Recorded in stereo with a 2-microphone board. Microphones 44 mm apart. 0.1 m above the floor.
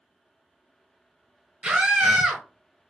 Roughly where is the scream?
Right.